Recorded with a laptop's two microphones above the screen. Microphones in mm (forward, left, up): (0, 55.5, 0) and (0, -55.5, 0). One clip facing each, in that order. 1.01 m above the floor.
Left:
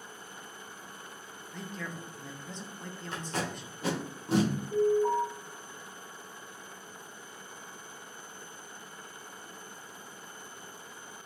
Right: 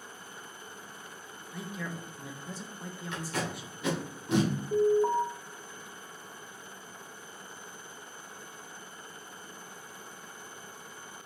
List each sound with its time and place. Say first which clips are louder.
1.5 s a woman speaking: right 2 dB; 10° right (ahead or behind), 0.6 m
3.1 s tape being pulled: even; 35° left (ahead or behind), 1.0 m
4.7 s an alarm: right 1 dB; 60° right (ahead or behind), 0.7 m